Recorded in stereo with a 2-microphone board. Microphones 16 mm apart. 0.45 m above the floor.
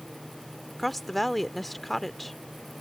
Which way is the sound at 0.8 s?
5° left (ahead or behind).